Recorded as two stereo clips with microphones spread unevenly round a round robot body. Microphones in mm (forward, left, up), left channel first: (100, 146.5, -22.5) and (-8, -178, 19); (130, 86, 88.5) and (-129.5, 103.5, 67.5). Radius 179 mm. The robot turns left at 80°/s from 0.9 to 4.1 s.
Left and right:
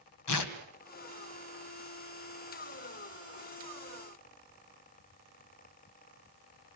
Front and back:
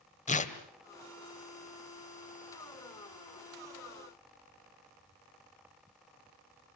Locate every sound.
0.3 s tearing paper: 60° left, 2.0 m